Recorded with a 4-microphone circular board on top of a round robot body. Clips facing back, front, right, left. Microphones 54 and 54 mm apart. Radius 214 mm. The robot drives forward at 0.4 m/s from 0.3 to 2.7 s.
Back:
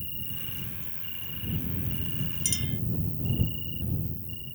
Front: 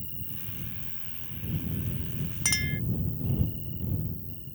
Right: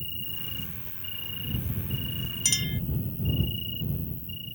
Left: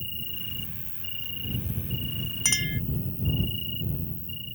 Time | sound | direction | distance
0.0 | an insect | 155° left | ?
2.5 | a clink | 35° left | ?